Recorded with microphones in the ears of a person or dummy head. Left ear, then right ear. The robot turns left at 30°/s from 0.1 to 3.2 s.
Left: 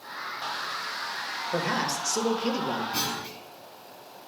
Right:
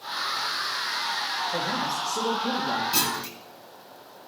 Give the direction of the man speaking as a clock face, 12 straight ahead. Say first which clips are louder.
Right 1 dB; 10 o'clock.